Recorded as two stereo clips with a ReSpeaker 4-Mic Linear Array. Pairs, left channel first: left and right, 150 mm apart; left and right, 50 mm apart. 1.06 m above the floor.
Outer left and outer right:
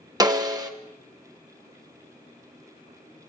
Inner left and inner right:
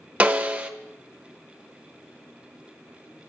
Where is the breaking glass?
I don't hear breaking glass.